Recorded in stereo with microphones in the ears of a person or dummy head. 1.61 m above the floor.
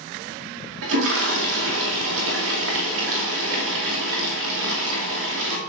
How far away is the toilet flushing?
About 2.5 m.